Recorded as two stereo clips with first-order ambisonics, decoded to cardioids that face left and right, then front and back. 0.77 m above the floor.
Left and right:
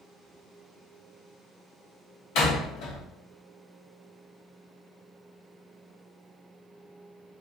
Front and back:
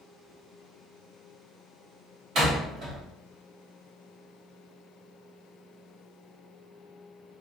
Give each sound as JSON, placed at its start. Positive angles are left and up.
{"t": 2.4, "sound": "a door slam", "azimuth_deg": 125, "distance_m": 1.1}